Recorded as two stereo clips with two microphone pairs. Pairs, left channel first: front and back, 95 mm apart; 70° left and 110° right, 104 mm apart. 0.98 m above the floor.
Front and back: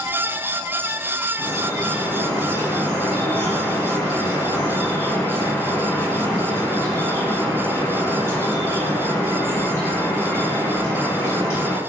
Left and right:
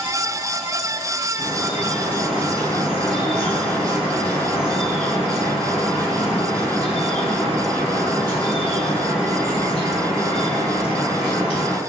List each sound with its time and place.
1.4 s dripping: 60° left, 2.0 m